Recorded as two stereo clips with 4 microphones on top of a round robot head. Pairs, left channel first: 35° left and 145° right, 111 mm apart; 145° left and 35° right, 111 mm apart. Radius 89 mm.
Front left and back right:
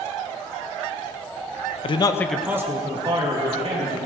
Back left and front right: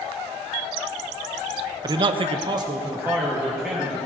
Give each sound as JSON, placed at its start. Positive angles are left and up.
{"t": 1.8, "sound": "a man speaking", "azimuth_deg": 15, "distance_m": 1.0}